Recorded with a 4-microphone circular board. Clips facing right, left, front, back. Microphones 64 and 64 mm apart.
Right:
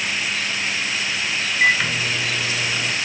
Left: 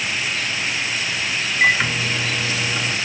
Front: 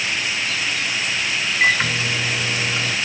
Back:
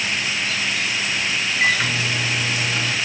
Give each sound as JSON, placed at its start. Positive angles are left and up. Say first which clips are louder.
{"t": 1.6, "sound": "a microwave", "louder": "left 1 dB, front 2 dB", "azimuth_deg": 40, "distance_m": 0.9}